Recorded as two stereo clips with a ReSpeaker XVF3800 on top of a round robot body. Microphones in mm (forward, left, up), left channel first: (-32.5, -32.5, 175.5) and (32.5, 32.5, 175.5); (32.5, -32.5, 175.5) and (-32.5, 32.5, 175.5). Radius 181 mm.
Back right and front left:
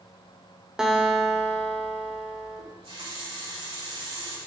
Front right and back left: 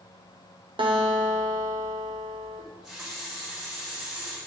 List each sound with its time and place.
0.8 s a guitar: 130° left, 1.5 m
2.6 s a running tap: 55° left, 5 m